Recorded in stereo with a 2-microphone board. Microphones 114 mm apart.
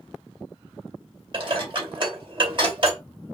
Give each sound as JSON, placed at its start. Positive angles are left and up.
{"t": 1.3, "sound": "dishes clattering", "side_deg": -45, "distance_m": 2.0}